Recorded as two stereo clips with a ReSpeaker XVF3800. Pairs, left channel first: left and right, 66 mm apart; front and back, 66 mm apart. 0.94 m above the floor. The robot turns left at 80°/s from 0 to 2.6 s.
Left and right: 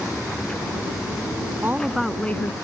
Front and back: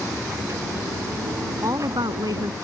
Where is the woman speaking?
145° right; by 2.5 s 140° left.